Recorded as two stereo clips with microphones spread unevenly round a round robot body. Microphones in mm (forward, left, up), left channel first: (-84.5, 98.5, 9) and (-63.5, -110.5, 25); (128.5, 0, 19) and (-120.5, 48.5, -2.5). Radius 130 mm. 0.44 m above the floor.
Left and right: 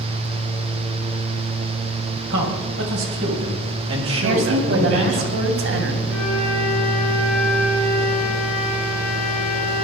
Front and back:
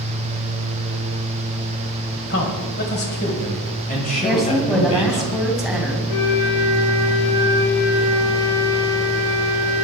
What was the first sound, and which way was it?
A man speaking, 55° right.